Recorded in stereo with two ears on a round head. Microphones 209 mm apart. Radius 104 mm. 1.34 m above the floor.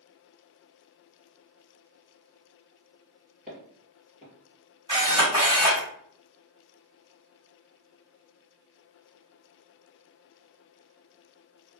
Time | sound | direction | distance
3.5 | footsteps | 5° right (ahead or behind) | 1.8 m
4.9 | a camera shutter | 20° right (ahead or behind) | 1.7 m